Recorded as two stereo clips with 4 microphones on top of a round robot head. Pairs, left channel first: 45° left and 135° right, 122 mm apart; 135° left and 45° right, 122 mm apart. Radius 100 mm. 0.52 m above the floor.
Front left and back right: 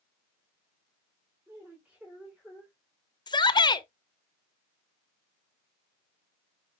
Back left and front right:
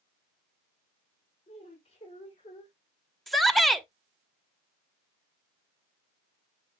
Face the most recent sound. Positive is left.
turn(degrees=45)